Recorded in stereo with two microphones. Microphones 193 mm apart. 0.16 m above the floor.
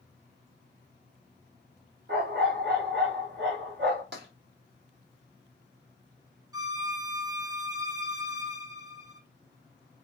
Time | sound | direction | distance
2.1 | a dog barking | 65° right (ahead or behind) | 3.5 m
4.1 | tapping | 60° right (ahead or behind) | 4.5 m
6.5 | a violin | 20° right (ahead or behind) | 1.0 m